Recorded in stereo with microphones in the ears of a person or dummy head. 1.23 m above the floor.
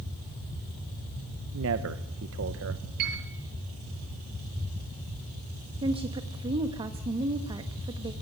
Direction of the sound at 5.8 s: 25° right (ahead or behind).